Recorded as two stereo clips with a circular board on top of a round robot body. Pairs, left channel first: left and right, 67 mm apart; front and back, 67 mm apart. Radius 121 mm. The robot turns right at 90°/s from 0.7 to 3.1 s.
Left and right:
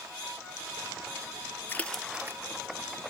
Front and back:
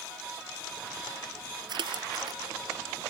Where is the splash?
155° left; by 2.4 s 145° right.